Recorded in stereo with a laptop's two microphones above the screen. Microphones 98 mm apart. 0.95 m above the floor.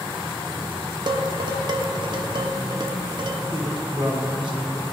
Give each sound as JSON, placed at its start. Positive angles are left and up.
{"t": 1.1, "sound": "dishes clattering", "side_deg": -50, "distance_m": 1.1}
{"t": 3.5, "sound": "a woman speaking", "side_deg": -60, "distance_m": 3.0}